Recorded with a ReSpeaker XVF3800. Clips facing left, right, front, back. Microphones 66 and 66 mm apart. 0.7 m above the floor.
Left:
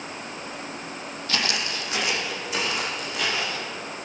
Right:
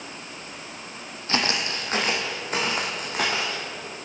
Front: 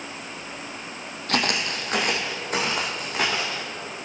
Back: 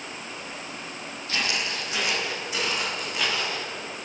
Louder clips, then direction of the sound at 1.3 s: Right 2 dB, front 4 dB; 30° right.